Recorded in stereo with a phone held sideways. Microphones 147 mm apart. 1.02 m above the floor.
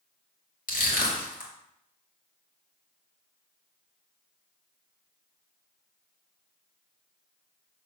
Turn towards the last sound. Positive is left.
turn(degrees=65)  # may be behind; listen again after turning